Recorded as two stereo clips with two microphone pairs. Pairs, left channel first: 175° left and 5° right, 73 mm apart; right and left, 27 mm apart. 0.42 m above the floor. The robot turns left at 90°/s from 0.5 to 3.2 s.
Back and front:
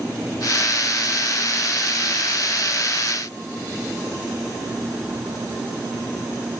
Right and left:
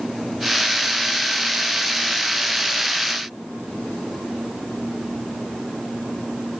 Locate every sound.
Only background noise.